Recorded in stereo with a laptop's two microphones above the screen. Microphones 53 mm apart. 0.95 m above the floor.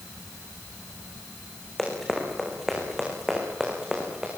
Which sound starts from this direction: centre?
Running footsteps, at 1.8 s.